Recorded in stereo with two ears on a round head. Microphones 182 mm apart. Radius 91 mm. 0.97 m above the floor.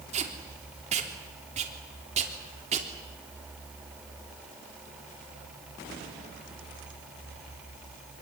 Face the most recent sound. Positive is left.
turn(degrees=-35)  # may be behind; listen again after turning